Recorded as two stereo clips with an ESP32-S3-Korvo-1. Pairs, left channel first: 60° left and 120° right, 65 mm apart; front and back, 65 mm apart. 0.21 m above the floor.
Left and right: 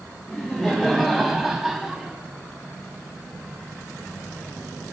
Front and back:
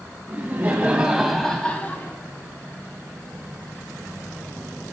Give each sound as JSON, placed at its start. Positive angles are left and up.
{"t": 0.3, "sound": "laughter", "azimuth_deg": 145, "distance_m": 1.4}